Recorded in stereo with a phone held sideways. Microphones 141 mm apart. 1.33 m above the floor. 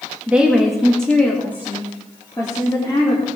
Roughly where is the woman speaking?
Centre.